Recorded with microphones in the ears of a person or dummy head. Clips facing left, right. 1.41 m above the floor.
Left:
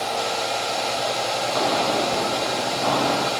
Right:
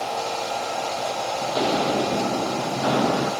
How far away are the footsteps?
About 2 m.